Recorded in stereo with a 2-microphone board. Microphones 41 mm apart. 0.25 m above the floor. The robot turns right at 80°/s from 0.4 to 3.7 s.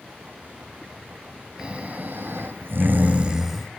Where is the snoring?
160° right, 1.4 m; by 3.7 s 5° left, 1.4 m.